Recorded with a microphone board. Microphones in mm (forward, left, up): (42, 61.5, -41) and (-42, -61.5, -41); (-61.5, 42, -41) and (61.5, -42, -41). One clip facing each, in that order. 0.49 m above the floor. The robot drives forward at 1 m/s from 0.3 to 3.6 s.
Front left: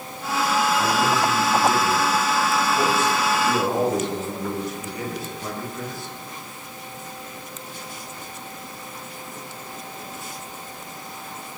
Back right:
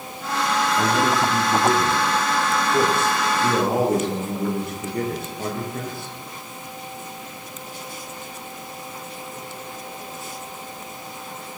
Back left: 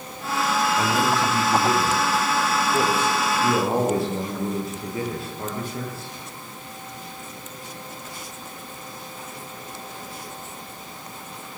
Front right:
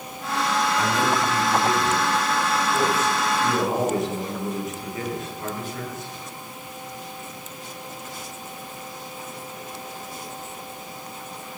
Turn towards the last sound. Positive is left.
turn(degrees=-155)